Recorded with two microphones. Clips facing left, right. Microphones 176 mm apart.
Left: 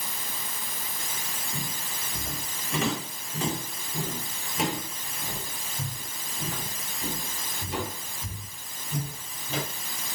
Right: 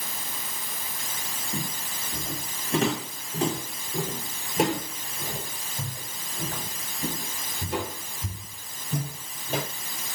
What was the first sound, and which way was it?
Footsteps, 30° right (ahead or behind).